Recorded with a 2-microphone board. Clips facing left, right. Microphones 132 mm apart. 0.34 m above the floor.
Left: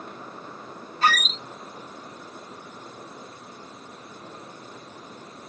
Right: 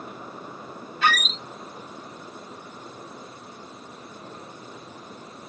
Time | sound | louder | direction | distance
1.0 | a squeak | left 1 dB | 35° left (ahead or behind) | 0.6 m